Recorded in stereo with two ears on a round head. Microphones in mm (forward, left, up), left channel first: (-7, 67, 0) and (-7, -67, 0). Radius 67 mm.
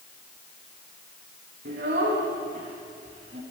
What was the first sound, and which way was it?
A child speaking, 75° right (ahead or behind).